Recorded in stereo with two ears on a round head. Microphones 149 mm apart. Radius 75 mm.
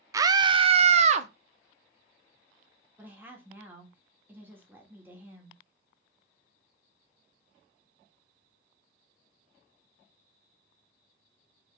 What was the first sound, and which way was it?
A scream, 20° right (ahead or behind).